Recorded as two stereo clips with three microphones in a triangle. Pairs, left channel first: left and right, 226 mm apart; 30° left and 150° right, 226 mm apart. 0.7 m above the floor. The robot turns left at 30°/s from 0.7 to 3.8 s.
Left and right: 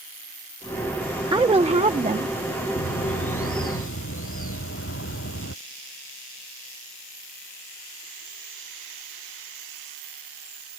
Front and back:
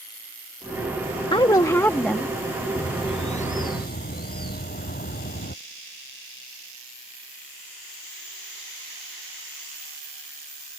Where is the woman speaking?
30° right; by 2.4 s 60° right.